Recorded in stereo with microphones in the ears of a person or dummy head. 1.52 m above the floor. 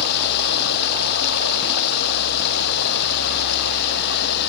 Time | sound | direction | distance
0.0 | running water | 65° left (ahead or behind) | ?